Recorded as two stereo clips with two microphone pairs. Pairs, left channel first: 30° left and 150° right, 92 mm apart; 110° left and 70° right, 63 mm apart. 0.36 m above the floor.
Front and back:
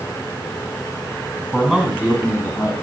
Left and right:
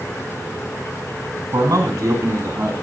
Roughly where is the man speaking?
Ahead right.